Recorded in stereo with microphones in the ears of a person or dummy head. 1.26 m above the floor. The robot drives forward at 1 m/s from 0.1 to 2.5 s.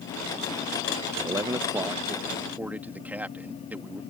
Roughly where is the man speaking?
Centre.